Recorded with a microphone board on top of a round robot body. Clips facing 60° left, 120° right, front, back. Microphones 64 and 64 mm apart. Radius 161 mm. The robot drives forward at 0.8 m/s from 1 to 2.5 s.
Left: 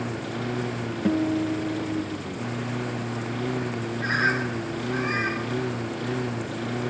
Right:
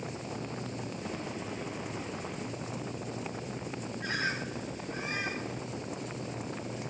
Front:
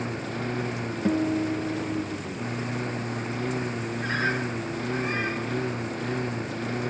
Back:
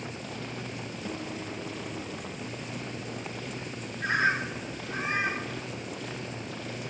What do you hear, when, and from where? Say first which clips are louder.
0.0 s a lawn mower: left 9 dB, front 7 dB; 45° left
1.1 s a guitar: left 19 dB, front 14 dB; 45° left; by 2.2 s 50° left
4.0 s a bird: left 10 dB, back 2 dB; 105° left